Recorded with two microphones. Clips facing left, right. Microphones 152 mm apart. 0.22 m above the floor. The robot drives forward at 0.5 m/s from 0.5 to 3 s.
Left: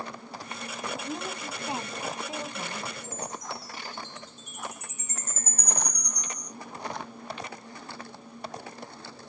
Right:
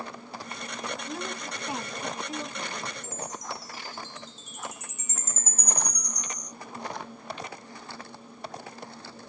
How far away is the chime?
About 3.5 m.